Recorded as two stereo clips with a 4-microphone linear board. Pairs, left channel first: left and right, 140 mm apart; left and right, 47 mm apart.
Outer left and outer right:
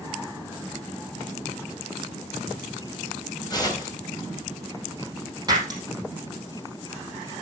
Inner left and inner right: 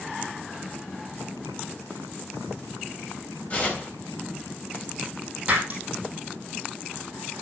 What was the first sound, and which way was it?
Tearing paper, 30° left (ahead or behind).